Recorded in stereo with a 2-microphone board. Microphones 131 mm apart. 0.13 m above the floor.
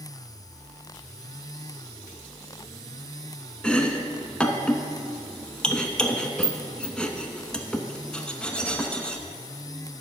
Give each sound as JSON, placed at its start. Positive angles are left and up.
{"t": 3.6, "sound": "chopping", "side_deg": 5, "distance_m": 0.6}